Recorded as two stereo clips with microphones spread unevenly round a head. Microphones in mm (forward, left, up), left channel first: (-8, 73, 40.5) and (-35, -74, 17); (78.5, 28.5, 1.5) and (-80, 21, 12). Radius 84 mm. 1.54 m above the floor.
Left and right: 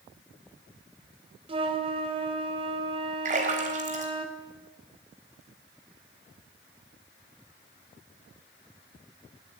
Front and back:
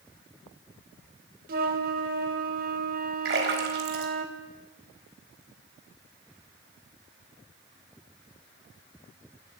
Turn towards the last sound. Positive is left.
turn(degrees=-145)